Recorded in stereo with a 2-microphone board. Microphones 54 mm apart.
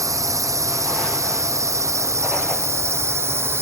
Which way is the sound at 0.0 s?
75° right (ahead or behind).